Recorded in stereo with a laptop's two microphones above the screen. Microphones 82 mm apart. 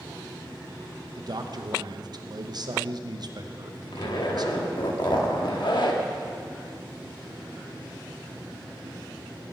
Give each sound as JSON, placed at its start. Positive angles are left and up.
{"t": 1.2, "sound": "a man speaking", "side_deg": -55, "distance_m": 0.7}
{"t": 3.9, "sound": "a zipper", "side_deg": 65, "distance_m": 1.1}